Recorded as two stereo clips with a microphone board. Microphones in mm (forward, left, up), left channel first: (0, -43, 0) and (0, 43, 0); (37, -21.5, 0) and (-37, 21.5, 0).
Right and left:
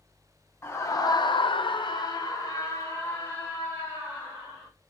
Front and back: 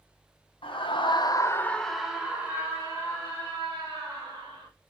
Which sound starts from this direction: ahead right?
A scream, at 0.6 s.